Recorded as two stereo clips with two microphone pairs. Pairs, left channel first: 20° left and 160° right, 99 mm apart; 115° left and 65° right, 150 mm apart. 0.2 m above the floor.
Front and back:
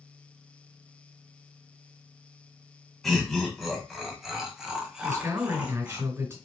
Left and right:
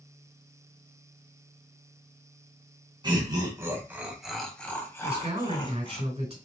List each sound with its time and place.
3.0 s laughter: 65° right, 1.3 m; by 6.0 s 130° left, 1.4 m
5.0 s a man speaking: 100° right, 3 m